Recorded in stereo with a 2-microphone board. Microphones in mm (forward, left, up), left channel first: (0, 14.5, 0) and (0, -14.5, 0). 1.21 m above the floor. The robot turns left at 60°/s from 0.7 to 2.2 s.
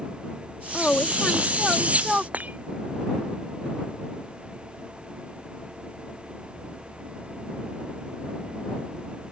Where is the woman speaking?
60° left; by 2.2 s 25° right.